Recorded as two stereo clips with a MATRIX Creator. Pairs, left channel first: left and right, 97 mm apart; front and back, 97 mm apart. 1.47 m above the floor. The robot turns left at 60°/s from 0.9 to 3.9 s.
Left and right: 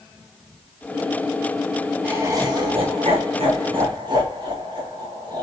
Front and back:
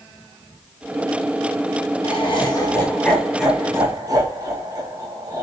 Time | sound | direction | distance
2.0 | laughter | 15° right | 2.5 m